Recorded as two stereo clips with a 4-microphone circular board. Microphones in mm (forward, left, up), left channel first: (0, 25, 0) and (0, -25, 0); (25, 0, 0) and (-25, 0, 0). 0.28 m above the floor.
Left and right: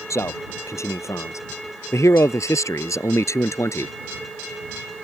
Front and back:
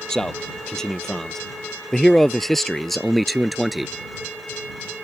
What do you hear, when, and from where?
0.1 s a man speaking: 75° left; by 3.9 s 90° left